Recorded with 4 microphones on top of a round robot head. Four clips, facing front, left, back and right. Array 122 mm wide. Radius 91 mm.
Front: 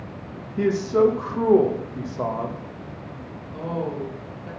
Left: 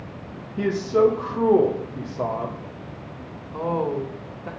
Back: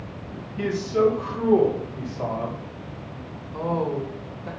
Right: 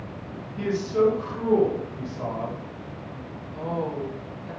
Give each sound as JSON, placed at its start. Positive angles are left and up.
{"t": 0.6, "sound": "a man speaking", "azimuth_deg": 40, "distance_m": 1.7}
{"t": 3.5, "sound": "a woman speaking", "azimuth_deg": 110, "distance_m": 2.5}